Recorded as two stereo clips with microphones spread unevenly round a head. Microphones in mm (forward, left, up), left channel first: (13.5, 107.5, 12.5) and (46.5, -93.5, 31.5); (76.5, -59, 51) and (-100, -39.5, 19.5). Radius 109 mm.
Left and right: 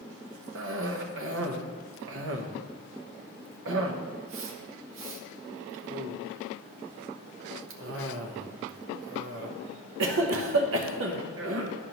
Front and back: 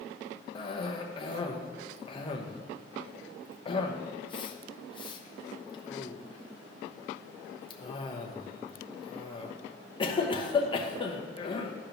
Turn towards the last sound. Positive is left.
turn(degrees=-65)